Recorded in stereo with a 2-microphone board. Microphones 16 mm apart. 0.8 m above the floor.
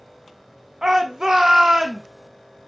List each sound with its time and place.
0.8 s a shout: 35° right (ahead or behind), 0.6 m